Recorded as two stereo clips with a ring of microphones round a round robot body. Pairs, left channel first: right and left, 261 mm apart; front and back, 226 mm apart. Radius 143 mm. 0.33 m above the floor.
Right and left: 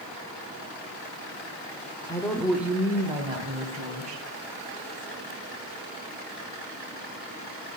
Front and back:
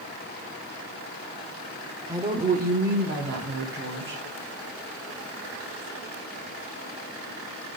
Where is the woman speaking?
135° right, 0.8 m; by 4.2 s 150° left, 2 m.